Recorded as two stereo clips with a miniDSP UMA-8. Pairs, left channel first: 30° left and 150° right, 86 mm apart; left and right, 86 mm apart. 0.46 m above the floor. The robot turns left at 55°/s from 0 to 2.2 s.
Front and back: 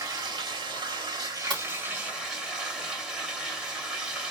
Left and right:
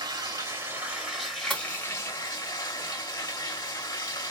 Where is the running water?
105° right, 1.7 m; by 4.3 s 130° left, 1.7 m.